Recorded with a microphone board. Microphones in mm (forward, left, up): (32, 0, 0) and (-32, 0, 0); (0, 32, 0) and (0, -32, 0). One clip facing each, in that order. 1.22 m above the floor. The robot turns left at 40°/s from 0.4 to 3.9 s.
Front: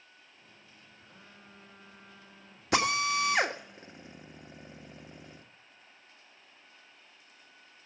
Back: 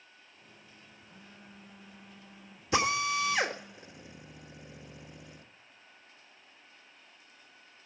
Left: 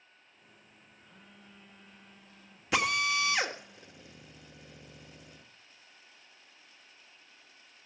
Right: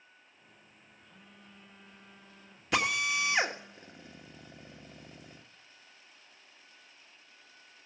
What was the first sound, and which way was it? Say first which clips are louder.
A phone buzzing: even, even; 35° left.